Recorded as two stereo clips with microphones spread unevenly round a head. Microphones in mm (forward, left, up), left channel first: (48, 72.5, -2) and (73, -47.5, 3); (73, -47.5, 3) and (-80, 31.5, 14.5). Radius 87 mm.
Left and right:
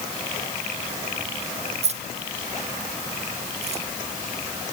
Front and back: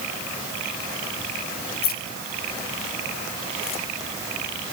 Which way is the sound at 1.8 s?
60° right.